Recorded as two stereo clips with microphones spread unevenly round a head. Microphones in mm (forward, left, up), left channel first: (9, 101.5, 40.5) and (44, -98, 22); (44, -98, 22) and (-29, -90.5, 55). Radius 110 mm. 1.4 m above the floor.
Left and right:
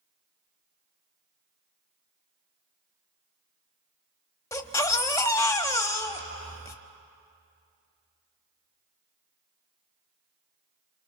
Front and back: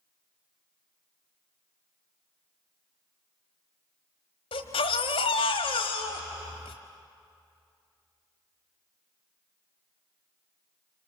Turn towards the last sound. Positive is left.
turn(degrees=30)